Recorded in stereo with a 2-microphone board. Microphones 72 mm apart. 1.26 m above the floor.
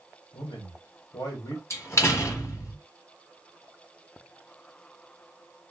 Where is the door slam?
40° left (ahead or behind), 0.9 m.